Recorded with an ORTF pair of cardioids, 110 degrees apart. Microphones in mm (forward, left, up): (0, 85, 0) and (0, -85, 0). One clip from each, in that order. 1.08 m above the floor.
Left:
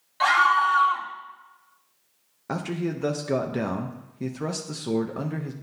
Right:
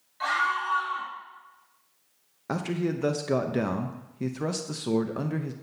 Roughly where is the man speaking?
Ahead.